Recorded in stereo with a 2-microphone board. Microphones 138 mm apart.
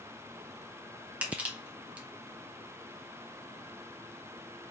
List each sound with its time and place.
1.2 s crushing: 10° right (ahead or behind), 1.4 m